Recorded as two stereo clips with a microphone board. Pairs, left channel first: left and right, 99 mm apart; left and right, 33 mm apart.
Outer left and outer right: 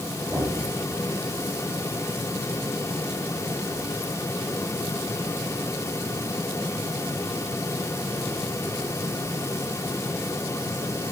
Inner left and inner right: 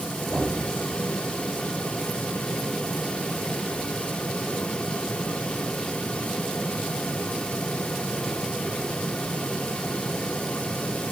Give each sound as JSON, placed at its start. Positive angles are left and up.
{"t": 0.3, "sound": "knocking", "side_deg": -30, "distance_m": 3.5}